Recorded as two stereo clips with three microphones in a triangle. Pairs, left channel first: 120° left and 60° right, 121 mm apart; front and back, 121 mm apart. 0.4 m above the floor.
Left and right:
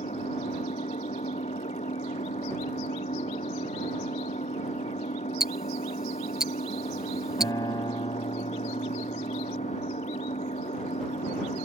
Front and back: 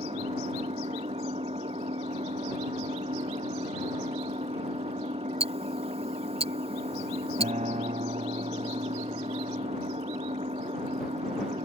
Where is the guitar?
Straight behind.